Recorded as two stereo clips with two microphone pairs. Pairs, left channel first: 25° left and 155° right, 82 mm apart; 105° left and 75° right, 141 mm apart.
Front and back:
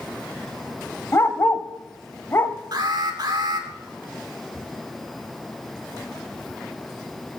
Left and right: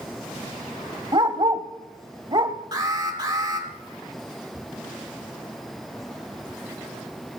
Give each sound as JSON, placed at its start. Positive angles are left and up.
{"t": 1.1, "sound": "a dog barking", "azimuth_deg": -25, "distance_m": 0.9}
{"t": 2.7, "sound": "an alarm", "azimuth_deg": -130, "distance_m": 2.5}